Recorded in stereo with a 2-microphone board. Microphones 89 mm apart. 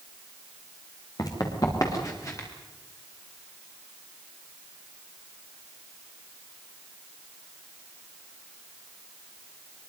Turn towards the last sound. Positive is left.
turn(degrees=35)  # may be behind; listen again after turning